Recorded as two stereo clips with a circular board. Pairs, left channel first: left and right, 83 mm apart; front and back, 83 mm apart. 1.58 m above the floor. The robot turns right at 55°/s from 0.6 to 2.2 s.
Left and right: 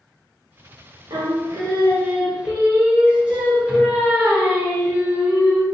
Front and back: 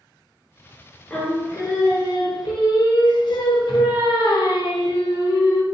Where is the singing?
75° right, 0.9 m; by 5.6 s 15° right, 0.9 m.